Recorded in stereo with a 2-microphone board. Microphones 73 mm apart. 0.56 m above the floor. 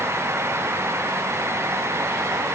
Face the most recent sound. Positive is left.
No sound to turn to.